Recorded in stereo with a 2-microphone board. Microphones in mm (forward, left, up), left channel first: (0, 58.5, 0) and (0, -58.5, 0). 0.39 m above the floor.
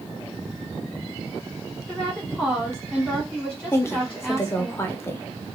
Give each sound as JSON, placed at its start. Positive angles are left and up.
{"t": 1.9, "sound": "a woman speaking", "side_deg": 10, "distance_m": 1.5}
{"t": 3.7, "sound": "a woman speaking", "side_deg": 20, "distance_m": 0.9}